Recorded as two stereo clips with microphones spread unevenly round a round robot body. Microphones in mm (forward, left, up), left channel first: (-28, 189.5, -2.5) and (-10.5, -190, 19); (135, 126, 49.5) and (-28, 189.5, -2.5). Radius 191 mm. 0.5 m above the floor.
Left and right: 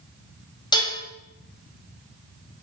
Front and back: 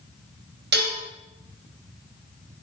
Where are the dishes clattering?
170° left, 1.8 m.